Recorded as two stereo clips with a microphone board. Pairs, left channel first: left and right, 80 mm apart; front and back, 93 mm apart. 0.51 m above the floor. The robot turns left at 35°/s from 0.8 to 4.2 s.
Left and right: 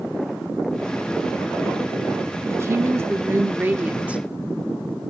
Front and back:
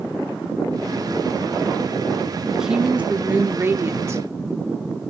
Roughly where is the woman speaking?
Right.